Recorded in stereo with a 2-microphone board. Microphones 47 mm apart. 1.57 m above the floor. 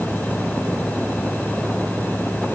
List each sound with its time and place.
Only background noise.